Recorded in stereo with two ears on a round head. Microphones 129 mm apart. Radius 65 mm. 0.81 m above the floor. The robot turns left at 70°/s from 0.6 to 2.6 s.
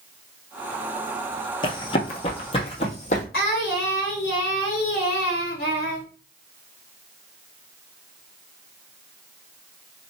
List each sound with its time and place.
1.6 s running footsteps: 35° left (ahead or behind), 0.9 m; by 3.2 s 50° left (ahead or behind), 1.6 m
3.3 s singing: 80° left, 1.7 m